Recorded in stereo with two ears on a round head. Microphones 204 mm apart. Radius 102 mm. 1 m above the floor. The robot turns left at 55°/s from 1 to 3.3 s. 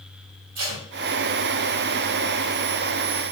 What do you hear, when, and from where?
0.6 s tape being pulled: 80° right, 1.8 m